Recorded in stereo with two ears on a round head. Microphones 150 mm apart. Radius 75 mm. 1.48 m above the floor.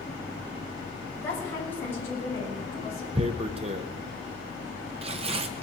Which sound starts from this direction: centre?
A woman speaking, at 1.2 s.